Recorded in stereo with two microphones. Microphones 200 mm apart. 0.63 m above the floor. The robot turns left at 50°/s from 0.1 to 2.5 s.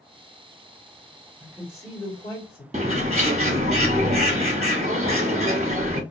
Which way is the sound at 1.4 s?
175° right.